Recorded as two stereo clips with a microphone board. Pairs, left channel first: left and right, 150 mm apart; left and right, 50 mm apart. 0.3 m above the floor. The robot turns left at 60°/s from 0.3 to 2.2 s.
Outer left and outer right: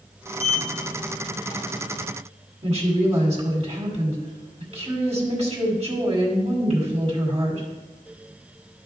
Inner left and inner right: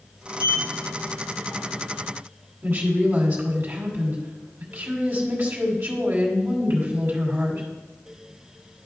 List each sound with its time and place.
0.4 s a sliding door: 40° left (ahead or behind), 1.4 m; by 1.6 s 15° left (ahead or behind), 1.4 m
2.6 s a woman speaking: 45° right (ahead or behind), 2 m